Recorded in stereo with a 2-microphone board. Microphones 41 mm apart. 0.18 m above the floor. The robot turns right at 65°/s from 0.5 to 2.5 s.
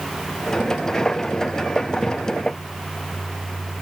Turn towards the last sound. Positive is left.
No sound to turn to.